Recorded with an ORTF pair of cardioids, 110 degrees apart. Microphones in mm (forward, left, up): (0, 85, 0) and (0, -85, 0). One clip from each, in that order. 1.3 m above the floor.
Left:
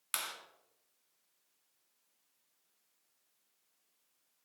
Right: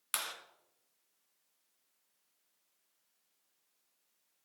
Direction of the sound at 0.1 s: 10° right.